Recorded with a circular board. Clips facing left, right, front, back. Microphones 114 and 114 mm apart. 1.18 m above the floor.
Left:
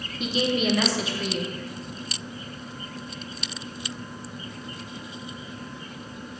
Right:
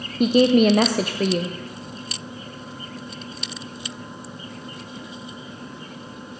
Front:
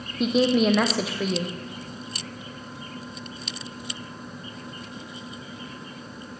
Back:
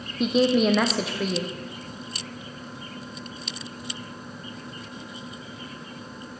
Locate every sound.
0.2 s a woman speaking: 90° right, 0.5 m